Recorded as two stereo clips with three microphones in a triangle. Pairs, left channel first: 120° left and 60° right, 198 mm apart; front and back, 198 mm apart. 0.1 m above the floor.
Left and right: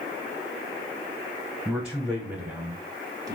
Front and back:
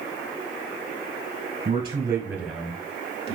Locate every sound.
1.6 s a man speaking: 155° right, 1.4 m; by 3.4 s 10° right, 1.4 m